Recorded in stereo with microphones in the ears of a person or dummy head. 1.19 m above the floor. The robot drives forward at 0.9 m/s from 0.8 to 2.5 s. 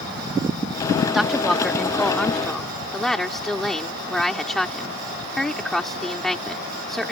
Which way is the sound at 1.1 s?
5° right (ahead or behind).